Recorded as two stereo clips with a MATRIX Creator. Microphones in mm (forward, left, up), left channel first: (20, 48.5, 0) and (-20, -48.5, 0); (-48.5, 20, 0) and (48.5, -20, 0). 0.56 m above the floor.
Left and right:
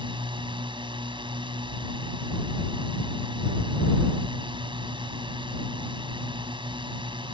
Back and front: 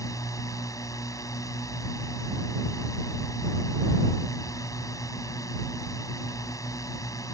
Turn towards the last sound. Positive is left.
turn(degrees=-145)